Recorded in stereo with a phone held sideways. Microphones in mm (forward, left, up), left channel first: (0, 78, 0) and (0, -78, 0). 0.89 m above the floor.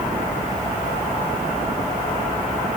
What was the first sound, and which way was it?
Only background noise.